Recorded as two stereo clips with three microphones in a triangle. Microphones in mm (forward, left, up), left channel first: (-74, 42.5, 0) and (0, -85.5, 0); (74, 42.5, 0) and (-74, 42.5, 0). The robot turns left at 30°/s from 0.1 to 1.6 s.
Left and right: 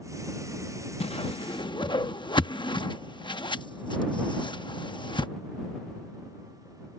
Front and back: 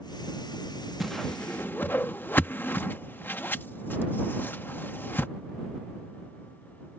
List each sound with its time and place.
1.0 s a whoosh: 90° left; by 5.3 s 75° left